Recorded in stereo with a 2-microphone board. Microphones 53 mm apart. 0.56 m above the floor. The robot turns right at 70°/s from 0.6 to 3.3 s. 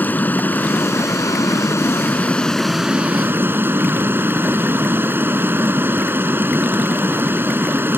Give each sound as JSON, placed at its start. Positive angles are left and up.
{"t": 0.0, "sound": "running water", "azimuth_deg": 35}